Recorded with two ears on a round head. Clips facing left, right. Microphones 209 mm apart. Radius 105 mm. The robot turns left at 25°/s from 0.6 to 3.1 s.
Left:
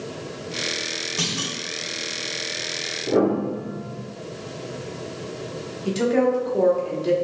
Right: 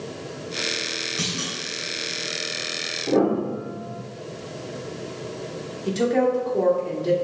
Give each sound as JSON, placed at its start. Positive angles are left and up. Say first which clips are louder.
{"t": 1.2, "sound": "a clunk", "louder": "left 2 dB", "side_deg": 70, "distance_m": 1.7}
{"t": 3.1, "sound": "a piano", "louder": "even", "side_deg": 15, "distance_m": 1.5}
{"t": 5.8, "sound": "a woman speaking", "louder": "left 1 dB", "side_deg": 5, "distance_m": 1.0}